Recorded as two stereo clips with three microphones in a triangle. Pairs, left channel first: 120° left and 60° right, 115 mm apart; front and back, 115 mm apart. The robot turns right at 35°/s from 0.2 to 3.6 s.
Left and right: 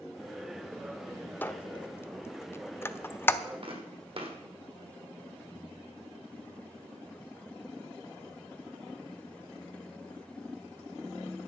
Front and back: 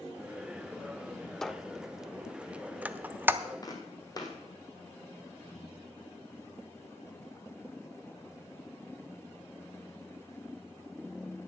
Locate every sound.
1.4 s a squeak: 80° left, 0.5 m; by 3.4 s 150° left, 0.5 m
3.6 s footsteps: 50° right, 1.9 m